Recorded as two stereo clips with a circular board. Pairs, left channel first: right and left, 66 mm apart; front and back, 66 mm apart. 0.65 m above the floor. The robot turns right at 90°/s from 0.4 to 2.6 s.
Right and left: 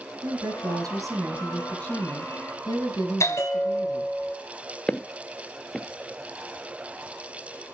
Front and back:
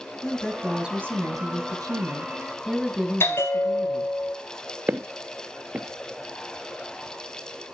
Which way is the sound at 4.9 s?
165° right.